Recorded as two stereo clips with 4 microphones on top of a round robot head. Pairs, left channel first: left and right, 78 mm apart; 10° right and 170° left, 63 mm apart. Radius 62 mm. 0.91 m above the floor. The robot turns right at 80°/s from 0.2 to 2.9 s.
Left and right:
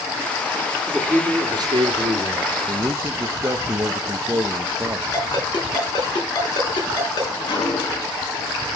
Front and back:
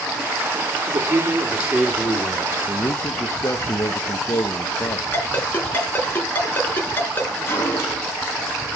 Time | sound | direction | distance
0.9 | a man speaking | 170° right | 2 m
2.7 | a man speaking | 55° right | 0.8 m
5.1 | a ringtone | 50° left | 5 m
7.5 | a gunshot | 45° left | 6.5 m